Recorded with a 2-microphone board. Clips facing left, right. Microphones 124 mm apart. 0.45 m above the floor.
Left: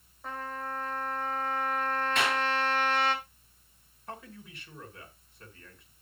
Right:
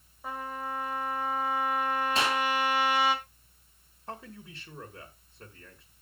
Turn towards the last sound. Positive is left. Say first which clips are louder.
# right 1 dB
turn(degrees=-30)  # may be behind; listen again after turning